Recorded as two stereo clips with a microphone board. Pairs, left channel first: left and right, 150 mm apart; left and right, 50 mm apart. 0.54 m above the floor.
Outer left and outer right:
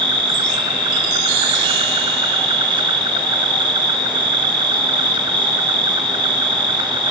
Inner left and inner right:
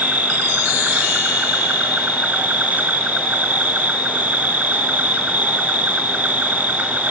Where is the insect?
30° right (ahead or behind), 1.8 m.